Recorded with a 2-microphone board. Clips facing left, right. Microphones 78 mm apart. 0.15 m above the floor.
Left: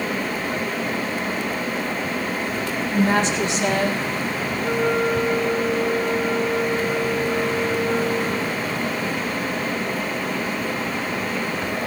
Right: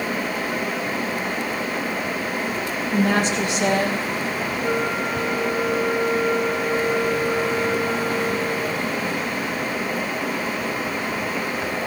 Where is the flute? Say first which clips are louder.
Left 4 dB; 75° right (ahead or behind), 6.5 m.